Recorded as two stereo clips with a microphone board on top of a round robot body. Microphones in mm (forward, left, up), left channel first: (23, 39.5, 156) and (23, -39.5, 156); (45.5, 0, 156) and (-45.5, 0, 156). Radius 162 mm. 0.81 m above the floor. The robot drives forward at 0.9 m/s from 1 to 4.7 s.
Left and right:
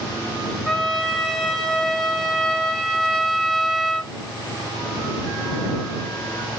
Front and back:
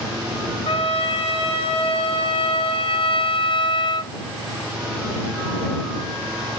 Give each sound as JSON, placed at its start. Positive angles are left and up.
{"t": 0.7, "sound": "a trumpet", "azimuth_deg": 0, "distance_m": 3.5}